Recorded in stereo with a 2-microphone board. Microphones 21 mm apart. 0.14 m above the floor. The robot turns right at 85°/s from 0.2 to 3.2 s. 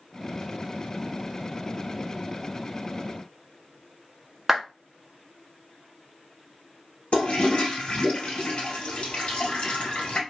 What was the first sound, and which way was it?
A clap, 15° right (ahead or behind).